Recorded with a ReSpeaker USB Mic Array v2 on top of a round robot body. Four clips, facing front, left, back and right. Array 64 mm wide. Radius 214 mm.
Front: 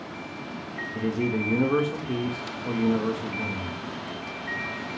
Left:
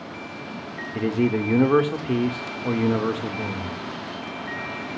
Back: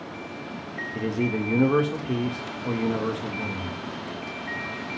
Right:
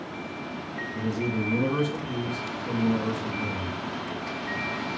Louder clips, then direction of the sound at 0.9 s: Left 7 dB, even; 95° left.